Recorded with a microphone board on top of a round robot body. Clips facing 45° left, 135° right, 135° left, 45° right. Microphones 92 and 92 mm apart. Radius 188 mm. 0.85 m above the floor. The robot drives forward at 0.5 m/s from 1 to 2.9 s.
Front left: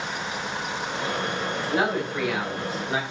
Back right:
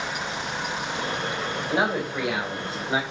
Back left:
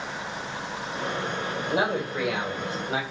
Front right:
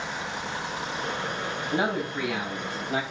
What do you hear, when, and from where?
1.7 s a man speaking: 140° left, 4 m; by 3.0 s 145° left, 4.5 m